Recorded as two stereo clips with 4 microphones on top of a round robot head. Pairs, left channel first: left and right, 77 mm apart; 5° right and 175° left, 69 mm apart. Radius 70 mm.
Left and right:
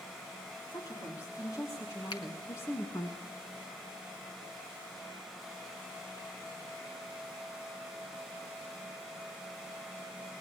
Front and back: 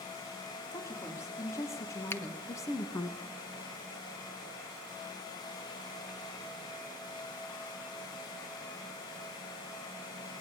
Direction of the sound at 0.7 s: 40° left.